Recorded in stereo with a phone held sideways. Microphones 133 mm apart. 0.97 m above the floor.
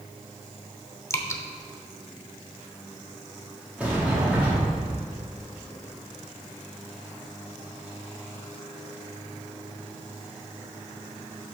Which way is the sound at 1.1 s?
20° left (ahead or behind).